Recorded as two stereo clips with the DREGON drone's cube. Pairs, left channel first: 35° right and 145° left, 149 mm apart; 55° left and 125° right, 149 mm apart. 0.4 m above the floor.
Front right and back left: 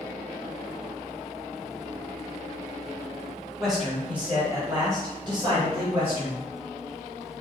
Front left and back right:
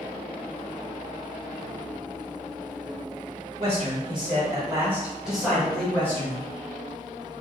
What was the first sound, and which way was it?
A man speaking, 125° right.